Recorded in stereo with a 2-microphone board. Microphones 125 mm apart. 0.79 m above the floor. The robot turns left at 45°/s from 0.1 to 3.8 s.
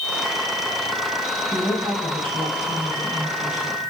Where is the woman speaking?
15° right, 6 m; by 3.8 s 120° right, 6 m.